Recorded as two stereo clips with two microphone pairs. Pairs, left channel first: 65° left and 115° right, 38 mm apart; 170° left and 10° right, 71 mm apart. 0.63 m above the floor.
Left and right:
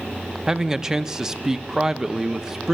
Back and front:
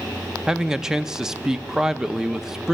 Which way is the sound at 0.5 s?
85° right.